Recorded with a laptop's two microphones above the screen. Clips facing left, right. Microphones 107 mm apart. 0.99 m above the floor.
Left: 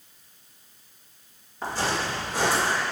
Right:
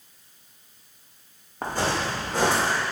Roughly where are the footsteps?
Right.